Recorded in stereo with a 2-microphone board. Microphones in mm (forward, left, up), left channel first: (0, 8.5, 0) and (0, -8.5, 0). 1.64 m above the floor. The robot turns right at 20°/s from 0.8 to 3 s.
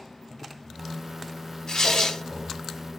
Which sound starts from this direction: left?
Tearing paper, at 1.7 s.